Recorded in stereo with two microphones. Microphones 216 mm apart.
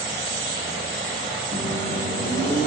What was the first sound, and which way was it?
A microwave, 45° right (ahead or behind).